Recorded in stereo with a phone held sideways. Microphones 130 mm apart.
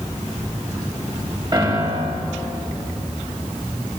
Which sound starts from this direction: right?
A piano, at 1.5 s.